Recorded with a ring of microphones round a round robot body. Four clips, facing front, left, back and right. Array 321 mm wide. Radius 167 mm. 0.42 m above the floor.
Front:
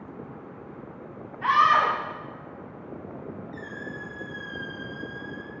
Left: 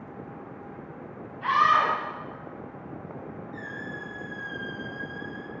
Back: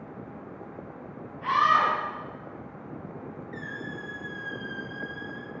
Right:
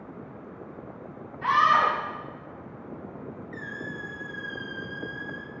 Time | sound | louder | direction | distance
1.4 | a scream | right 1 dB, front 2 dB | 15° right | 3.5 m
3.5 | a squeak | right 2 dB, even | 120° right | 1.9 m